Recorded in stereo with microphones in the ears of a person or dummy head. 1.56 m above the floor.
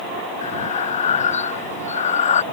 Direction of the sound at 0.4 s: 35° left (ahead or behind).